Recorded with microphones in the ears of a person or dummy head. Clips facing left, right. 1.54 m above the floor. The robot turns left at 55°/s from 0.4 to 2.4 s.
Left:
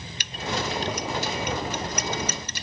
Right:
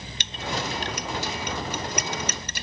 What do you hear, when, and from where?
0.2 s a clink: 25° right (ahead or behind); by 2.6 s 45° right (ahead or behind)